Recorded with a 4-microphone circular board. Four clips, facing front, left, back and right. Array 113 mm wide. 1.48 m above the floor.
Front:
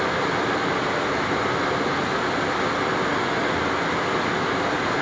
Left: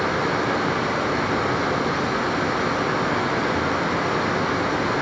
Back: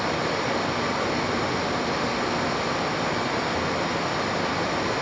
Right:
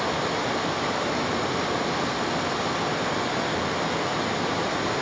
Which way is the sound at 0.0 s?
50° left.